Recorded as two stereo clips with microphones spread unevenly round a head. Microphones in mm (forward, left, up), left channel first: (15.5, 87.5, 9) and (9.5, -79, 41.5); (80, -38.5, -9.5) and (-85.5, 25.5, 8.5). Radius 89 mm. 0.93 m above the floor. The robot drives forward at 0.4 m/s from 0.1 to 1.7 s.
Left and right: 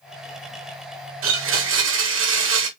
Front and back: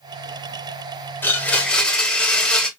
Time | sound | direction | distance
1.2 | a blender | 100° right | 1.7 m